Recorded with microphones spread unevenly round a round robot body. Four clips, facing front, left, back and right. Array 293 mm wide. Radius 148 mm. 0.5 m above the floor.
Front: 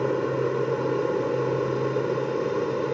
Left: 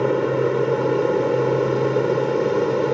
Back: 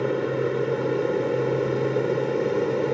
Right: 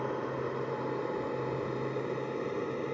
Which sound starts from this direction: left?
An aircraft, at 0.0 s.